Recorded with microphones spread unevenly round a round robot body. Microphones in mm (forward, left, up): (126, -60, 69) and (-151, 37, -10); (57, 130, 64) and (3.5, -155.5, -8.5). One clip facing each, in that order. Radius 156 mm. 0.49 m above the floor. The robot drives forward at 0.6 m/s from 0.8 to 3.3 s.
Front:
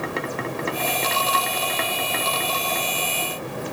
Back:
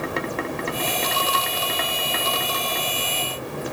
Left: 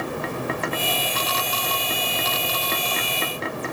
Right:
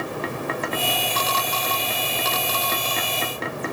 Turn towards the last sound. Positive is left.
No sound to turn to.